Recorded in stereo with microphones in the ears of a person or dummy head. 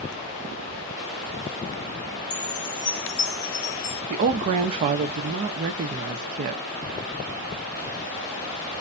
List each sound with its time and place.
2.3 s a chime: 40° left (ahead or behind), 1.0 m
4.1 s a woman speaking: 40° right (ahead or behind), 0.5 m